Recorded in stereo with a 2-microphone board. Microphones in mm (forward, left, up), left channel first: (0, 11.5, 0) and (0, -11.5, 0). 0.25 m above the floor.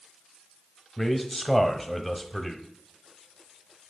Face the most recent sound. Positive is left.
turn(degrees=5)  # may be behind; listen again after turning